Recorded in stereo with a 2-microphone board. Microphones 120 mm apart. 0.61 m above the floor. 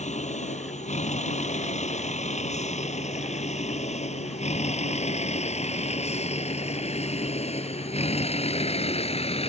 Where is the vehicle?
75° left (ahead or behind); by 9.5 s 60° left (ahead or behind).